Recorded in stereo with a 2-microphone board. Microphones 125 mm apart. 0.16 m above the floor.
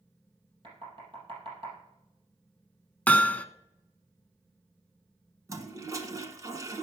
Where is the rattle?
I don't hear a rattle.